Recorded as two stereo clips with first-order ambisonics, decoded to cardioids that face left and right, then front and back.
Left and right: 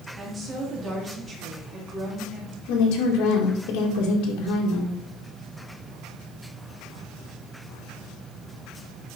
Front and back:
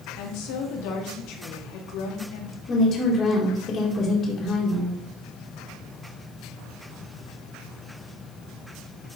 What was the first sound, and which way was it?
A woman speaking, 20° right.